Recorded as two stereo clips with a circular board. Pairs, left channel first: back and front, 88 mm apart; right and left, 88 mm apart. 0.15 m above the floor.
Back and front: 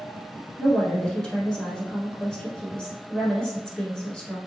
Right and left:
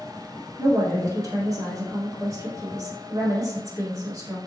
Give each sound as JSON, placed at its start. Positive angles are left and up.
{"t": 0.6, "sound": "a woman speaking", "azimuth_deg": 105, "distance_m": 1.3}